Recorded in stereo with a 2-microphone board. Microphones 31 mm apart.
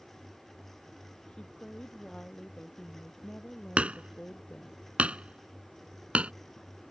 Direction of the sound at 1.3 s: 30° left (ahead or behind).